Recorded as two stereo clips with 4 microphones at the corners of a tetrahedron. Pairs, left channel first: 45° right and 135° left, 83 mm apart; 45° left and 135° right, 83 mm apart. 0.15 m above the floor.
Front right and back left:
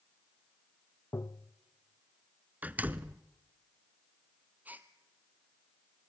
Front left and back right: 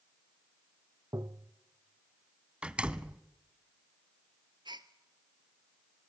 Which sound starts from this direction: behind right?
A gasp, at 4.7 s.